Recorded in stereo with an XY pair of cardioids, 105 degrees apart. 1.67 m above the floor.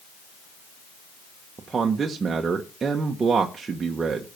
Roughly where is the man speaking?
Ahead right.